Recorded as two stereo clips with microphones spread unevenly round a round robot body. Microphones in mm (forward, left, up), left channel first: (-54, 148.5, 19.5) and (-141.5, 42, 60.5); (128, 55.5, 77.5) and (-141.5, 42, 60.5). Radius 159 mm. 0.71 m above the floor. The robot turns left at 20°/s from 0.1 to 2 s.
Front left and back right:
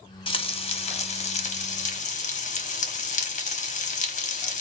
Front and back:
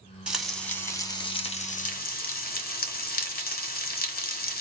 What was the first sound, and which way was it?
Frying, 100° left.